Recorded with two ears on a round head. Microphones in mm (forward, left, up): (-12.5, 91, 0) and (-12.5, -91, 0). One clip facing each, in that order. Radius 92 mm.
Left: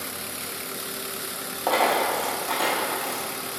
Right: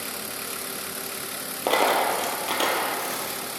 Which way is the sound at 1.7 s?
35° right (ahead or behind).